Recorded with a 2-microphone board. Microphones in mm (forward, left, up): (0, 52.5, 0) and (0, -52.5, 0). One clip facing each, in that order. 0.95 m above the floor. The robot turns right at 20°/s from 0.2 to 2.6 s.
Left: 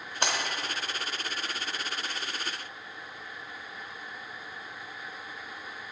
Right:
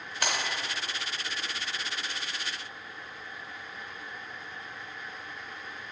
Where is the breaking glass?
25° left (ahead or behind), 1.0 m.